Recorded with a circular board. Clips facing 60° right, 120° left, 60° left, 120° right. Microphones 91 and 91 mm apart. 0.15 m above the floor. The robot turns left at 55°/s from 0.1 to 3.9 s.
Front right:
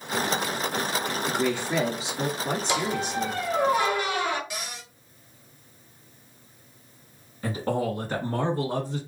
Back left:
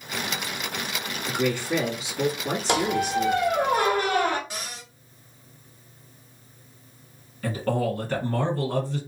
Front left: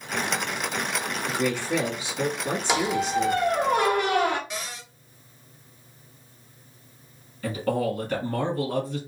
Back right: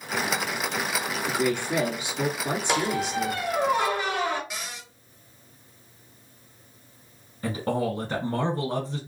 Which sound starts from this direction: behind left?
A squeak, at 2.7 s.